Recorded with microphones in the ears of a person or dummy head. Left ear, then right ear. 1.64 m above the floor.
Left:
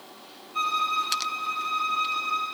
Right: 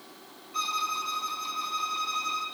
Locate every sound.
0.5 s a violin: 75° right (ahead or behind), 5.5 m